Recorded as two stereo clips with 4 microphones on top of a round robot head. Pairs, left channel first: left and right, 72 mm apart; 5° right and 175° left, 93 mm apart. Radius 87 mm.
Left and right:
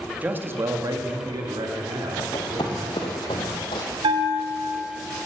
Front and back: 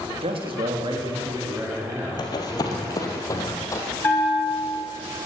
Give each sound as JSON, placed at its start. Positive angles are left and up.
{"t": 0.2, "sound": "a man speaking", "azimuth_deg": -160, "distance_m": 1.9}
{"t": 2.2, "sound": "running footsteps", "azimuth_deg": 35, "distance_m": 1.8}
{"t": 4.0, "sound": "a bell", "azimuth_deg": -75, "distance_m": 1.4}